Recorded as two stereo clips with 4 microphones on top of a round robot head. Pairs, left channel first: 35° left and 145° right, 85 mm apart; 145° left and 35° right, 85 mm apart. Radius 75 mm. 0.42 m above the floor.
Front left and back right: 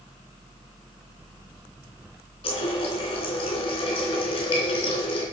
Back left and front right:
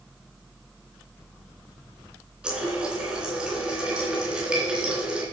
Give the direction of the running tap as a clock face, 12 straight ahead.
11 o'clock.